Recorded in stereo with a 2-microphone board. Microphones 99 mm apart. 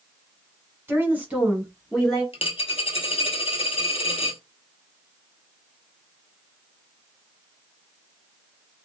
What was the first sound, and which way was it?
A woman speaking, 25° right (ahead or behind).